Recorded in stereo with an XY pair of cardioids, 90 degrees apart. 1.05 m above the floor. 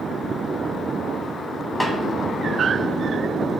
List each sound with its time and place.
1.8 s a snare drum: 10° left, 0.7 m